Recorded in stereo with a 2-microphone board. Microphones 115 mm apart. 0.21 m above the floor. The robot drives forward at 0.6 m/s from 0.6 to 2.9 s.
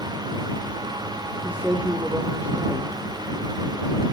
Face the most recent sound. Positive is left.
turn(degrees=-15)  # may be behind; listen again after turning